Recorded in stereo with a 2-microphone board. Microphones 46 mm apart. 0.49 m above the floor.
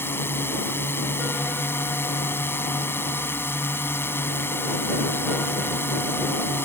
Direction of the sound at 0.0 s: 60° left (ahead or behind).